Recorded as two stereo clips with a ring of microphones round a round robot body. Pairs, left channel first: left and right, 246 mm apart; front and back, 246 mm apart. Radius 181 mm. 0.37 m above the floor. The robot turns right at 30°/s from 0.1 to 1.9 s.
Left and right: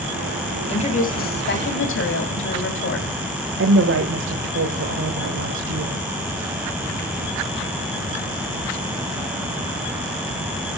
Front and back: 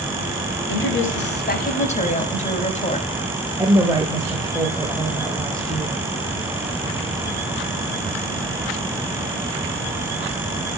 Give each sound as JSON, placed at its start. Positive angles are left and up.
{"t": 0.7, "sound": "a woman speaking", "azimuth_deg": 25, "distance_m": 3.5}
{"t": 3.6, "sound": "a woman speaking", "azimuth_deg": -105, "distance_m": 1.2}